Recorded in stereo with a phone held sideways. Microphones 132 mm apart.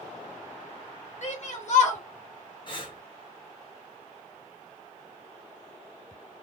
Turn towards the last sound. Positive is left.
turn(degrees=35)  # may be behind; listen again after turning